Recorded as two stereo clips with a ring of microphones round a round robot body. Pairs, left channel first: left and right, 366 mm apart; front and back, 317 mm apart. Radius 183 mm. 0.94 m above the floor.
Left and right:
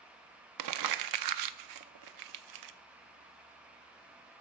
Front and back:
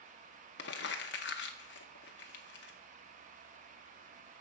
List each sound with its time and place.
0.6 s crumpling: 60° right, 0.5 m